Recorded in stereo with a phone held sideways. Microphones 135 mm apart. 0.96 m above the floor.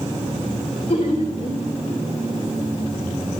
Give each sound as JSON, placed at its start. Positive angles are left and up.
{"t": 0.9, "sound": "laughter", "side_deg": 50, "distance_m": 3.0}